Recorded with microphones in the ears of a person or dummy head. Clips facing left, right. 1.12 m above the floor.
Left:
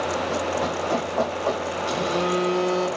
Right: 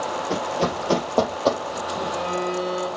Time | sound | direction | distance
0.3 | running footsteps | 45° right (ahead or behind) | 1.6 m
1.9 | a phone buzzing | 65° left (ahead or behind) | 3 m